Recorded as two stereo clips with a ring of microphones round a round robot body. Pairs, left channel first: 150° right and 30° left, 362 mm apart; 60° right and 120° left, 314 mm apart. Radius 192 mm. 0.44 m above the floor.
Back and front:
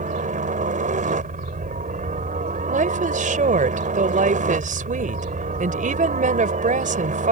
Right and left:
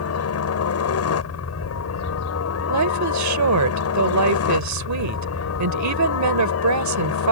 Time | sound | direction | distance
0.0 | a helicopter | 35° right | ?
2.7 | a woman speaking | 100° left | ?